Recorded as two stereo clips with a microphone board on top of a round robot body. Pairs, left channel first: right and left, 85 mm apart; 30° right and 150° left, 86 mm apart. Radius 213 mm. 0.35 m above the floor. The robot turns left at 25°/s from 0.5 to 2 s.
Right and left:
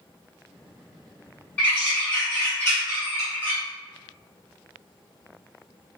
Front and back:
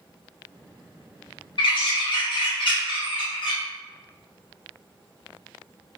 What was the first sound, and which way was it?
A bird, 15° right.